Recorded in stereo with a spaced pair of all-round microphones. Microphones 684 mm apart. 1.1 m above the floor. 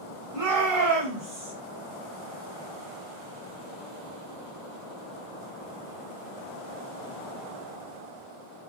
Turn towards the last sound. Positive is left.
turn(degrees=-40)  # may be behind; listen again after turning